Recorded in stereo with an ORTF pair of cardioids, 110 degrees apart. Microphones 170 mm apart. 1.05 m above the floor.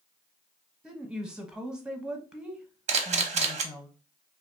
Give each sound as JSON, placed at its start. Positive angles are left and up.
{"t": 0.8, "sound": "a woman speaking", "azimuth_deg": -5, "distance_m": 0.9}
{"t": 2.9, "sound": "a camera shutter", "azimuth_deg": -45, "distance_m": 0.7}